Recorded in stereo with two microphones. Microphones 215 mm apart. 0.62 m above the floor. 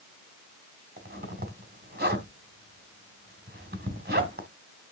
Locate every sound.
1.0 s a zipper: 50° right (ahead or behind), 2.5 m